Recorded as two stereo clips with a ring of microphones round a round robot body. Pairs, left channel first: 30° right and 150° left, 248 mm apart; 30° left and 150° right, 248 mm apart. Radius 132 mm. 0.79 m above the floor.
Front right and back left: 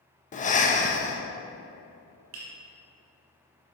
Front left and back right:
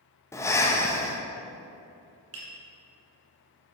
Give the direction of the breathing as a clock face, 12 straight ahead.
1 o'clock.